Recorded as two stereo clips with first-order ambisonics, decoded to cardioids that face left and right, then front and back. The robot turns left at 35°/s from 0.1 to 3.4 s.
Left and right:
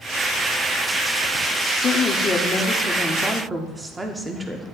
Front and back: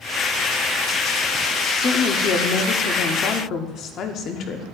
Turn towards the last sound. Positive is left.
turn(degrees=-15)